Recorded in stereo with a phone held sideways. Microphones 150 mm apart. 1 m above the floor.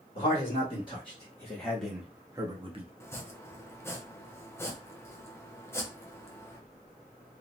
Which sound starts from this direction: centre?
Chopping, at 3.0 s.